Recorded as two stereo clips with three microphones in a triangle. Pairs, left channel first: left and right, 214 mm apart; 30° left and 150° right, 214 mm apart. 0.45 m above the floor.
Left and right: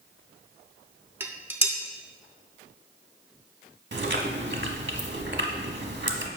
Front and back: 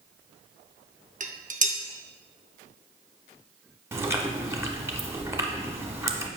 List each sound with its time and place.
1.2 s dishes clattering: 165° right, 0.6 m
3.9 s chewing: 75° right, 0.8 m